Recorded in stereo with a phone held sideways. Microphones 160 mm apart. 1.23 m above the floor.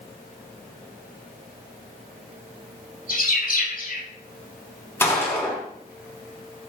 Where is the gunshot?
15° left (ahead or behind), 5.5 m.